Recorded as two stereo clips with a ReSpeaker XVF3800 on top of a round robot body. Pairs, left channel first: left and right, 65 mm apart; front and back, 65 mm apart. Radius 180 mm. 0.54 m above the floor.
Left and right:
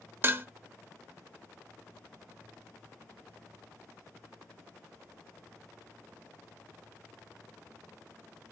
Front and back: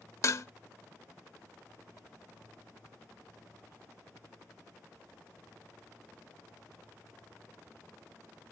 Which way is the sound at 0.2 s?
40° right.